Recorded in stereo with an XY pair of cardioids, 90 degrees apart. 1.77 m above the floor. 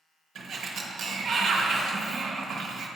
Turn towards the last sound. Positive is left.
turn(degrees=-70)